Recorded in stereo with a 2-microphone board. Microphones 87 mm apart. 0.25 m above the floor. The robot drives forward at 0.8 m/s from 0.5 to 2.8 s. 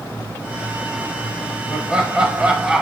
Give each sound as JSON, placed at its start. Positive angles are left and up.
{"t": 1.7, "sound": "laughter", "side_deg": -10, "distance_m": 0.9}